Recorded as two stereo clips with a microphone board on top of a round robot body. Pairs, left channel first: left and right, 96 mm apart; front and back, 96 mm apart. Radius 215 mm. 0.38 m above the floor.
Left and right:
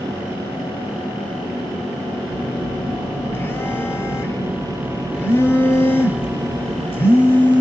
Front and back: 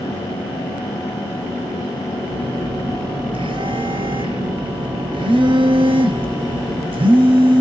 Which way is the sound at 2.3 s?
155° left.